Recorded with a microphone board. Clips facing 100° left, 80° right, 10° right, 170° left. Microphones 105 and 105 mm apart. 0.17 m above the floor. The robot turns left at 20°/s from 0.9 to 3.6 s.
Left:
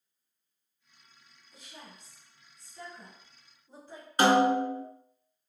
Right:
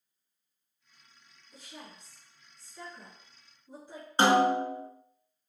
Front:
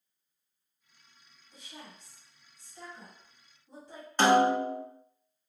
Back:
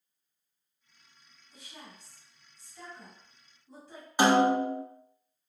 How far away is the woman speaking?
About 1.5 m.